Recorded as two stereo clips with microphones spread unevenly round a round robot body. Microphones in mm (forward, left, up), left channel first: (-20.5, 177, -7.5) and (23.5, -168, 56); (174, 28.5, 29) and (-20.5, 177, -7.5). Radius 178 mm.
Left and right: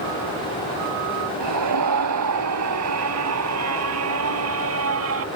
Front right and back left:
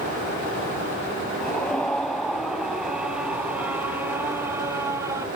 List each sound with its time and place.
1.4 s a scream: 125° right; by 5.2 s 135° right